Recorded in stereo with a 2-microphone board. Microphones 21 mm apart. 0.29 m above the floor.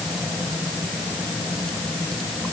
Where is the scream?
I don't hear a scream.